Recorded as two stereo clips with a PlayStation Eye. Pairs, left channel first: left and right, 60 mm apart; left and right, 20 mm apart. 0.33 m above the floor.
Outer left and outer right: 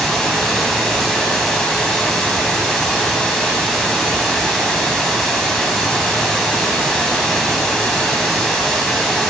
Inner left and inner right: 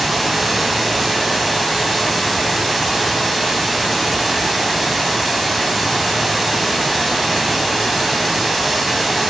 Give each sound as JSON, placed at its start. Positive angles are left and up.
{"t": 0.0, "sound": "running water", "side_deg": 10, "distance_m": 1.9}